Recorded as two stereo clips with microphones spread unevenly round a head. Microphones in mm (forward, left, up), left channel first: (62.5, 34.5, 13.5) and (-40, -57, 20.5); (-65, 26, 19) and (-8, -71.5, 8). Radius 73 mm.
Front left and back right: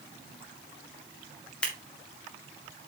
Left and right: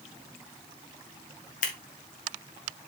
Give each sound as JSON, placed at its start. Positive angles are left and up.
{"t": 1.6, "sound": "scissors", "azimuth_deg": 125, "distance_m": 1.8}